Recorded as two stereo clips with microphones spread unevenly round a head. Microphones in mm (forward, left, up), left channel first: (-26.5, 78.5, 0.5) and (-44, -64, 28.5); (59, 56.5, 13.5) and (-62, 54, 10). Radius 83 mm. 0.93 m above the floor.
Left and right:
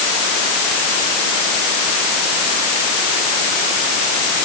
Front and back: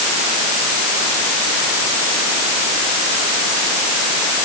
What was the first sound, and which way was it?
Only background noise.